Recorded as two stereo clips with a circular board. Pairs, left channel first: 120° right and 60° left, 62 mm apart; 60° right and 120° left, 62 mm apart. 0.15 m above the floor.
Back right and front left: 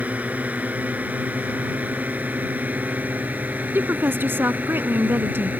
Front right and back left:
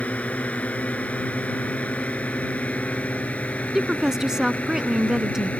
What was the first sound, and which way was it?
A drone, straight ahead.